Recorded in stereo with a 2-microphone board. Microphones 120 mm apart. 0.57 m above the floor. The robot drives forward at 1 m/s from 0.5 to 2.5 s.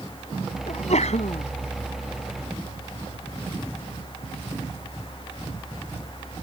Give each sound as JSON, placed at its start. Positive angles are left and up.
{"t": 0.7, "sound": "a sneeze", "side_deg": 80}